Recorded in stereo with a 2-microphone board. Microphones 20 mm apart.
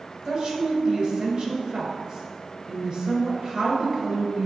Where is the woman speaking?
40° right (ahead or behind), 2.0 m.